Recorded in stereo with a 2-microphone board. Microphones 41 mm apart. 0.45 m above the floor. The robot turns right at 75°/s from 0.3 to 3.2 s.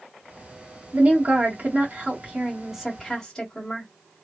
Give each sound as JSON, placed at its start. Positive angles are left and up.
{"t": 0.9, "sound": "a woman speaking", "azimuth_deg": -150, "distance_m": 1.4}